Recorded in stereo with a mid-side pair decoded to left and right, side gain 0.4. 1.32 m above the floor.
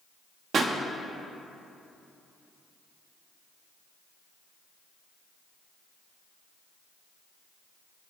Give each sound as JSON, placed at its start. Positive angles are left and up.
{"t": 0.5, "sound": "a pop", "azimuth_deg": -60, "distance_m": 1.4}